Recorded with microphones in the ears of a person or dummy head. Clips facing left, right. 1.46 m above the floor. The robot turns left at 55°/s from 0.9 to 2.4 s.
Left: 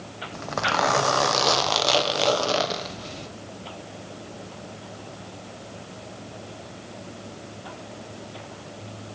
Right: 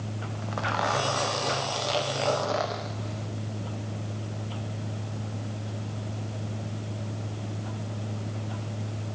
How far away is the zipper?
About 0.6 m.